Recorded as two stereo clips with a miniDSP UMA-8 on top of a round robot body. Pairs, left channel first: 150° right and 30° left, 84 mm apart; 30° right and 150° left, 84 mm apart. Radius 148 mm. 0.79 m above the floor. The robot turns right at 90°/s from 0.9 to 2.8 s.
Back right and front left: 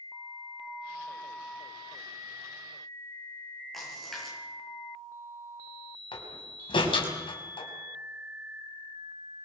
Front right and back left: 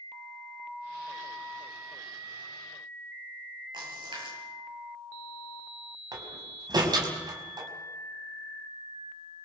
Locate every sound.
3.7 s a splash: 120° left, 8.5 m
6.1 s a door slam: 170° right, 5 m